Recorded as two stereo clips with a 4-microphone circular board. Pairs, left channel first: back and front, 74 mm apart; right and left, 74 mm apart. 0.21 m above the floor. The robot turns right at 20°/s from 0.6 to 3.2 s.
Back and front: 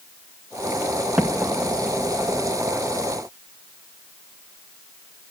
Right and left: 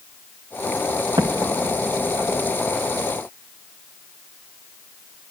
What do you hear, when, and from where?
1.2 s an explosion: 75° left, 1.1 m; by 2.5 s 105° left, 1.1 m